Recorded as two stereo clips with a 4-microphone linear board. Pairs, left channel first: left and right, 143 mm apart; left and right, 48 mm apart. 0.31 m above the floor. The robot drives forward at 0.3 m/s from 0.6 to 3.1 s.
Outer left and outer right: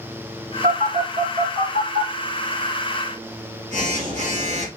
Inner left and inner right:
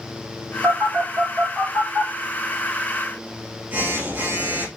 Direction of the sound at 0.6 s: 65° right (ahead or behind).